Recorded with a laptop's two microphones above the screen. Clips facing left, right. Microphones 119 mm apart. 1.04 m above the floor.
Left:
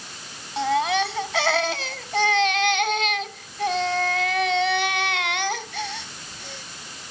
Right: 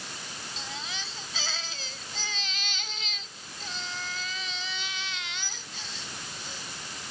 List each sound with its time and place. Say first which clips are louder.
0.6 s a baby crying: left 22 dB; 75° left (ahead or behind)